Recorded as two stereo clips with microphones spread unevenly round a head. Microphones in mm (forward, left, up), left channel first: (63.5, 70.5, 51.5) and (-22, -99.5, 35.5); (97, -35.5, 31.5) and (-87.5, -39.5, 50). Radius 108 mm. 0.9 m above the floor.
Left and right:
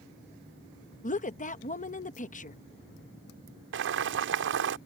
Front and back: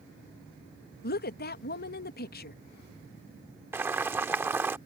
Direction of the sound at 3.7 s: 100° right.